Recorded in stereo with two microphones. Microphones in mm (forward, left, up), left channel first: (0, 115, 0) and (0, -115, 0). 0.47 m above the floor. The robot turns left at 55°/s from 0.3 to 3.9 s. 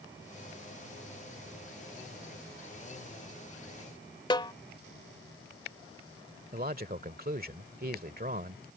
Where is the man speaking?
40° right (ahead or behind).